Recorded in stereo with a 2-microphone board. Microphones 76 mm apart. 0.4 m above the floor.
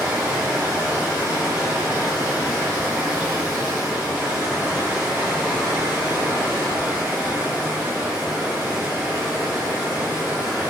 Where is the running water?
15° right (ahead or behind), 1.8 m.